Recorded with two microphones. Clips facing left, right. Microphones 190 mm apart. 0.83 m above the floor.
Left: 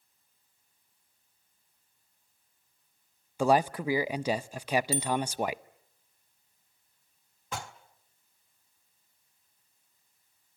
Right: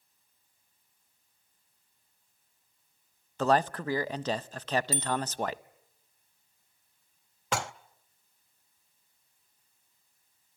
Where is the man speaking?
10° left (ahead or behind), 0.5 m.